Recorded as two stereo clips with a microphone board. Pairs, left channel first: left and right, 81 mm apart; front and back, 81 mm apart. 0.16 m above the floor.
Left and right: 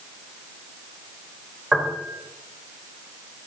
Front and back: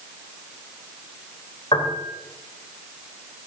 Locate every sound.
1.7 s a piano: 15° right, 4.5 m